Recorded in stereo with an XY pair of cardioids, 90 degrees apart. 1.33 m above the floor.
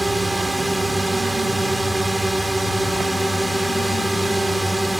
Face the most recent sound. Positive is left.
turn(degrees=-15)